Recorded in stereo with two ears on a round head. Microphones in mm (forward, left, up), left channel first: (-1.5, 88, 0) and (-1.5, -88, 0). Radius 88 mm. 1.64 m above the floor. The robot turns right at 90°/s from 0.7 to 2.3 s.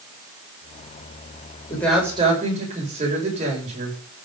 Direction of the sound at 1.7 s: 160° left.